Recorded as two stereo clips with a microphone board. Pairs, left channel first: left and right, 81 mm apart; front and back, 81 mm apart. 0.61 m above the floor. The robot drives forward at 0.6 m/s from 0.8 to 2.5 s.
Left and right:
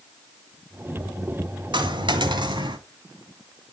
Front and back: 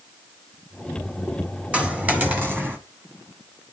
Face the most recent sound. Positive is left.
turn(degrees=-115)